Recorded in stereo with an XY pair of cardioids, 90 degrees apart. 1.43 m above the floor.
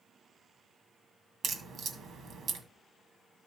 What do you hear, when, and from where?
1.4 s a crack: 70° right, 2.0 m